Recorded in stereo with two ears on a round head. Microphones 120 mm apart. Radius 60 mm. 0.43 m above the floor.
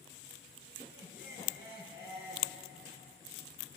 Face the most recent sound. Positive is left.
turn(degrees=80)